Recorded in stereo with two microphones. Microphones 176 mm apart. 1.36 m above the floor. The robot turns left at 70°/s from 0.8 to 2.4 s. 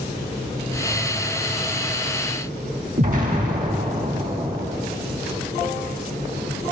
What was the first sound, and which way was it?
An explosion, 50° right (ahead or behind).